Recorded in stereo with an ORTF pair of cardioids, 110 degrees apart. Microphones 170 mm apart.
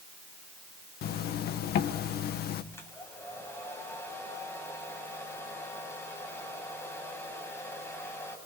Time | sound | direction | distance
1.0 | a zipper | 70° left | 1.9 m
2.7 | a hair dryer | 15° left | 8 m